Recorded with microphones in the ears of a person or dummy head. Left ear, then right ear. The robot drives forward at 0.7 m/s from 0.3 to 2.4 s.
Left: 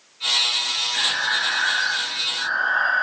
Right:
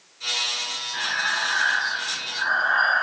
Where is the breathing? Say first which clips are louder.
Even; 30° right (ahead or behind), 2 m; by 3.0 s 45° right (ahead or behind), 1.5 m.